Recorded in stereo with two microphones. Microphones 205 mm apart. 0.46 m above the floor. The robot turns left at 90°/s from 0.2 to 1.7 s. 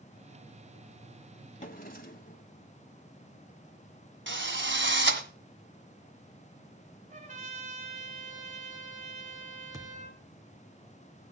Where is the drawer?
35° left (ahead or behind), 1.8 m; by 2.5 s 45° left (ahead or behind), 1.8 m.